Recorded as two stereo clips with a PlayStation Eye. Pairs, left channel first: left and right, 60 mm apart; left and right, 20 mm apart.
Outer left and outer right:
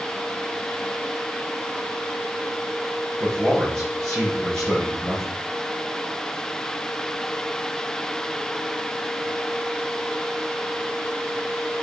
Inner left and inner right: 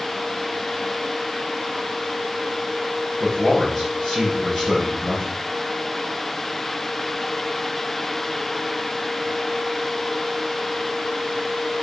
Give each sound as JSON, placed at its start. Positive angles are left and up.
{"t": 3.2, "sound": "a man speaking", "side_deg": 10, "distance_m": 5.5}